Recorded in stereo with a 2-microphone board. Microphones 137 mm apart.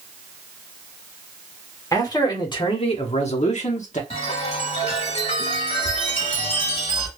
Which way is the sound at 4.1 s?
45° left (ahead or behind).